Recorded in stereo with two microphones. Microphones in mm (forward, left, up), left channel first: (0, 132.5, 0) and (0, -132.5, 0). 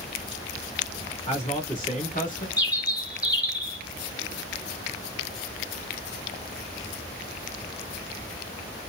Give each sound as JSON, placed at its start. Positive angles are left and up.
{"t": 1.3, "sound": "a man speaking", "side_deg": 25, "distance_m": 1.4}
{"t": 2.6, "sound": "a bird", "side_deg": 15, "distance_m": 1.4}